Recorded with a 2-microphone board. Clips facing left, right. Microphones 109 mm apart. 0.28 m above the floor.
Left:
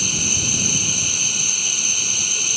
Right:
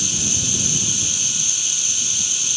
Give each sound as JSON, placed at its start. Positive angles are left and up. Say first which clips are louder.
{"t": 0.0, "sound": "running water", "louder": "left 1 dB", "side_deg": 50}